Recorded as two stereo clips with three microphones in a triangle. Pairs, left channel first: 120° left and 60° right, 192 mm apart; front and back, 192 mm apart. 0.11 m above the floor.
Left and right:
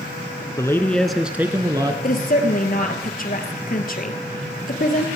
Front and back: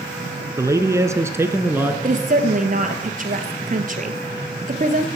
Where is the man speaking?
150° left, 1.2 m; by 1.9 s 110° right, 1.4 m.